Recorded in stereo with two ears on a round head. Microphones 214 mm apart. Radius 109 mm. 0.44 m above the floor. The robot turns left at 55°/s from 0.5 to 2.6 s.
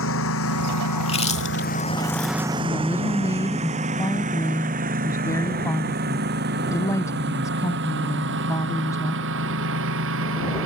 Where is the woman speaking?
15° left (ahead or behind); by 9.2 s 10° left (ahead or behind).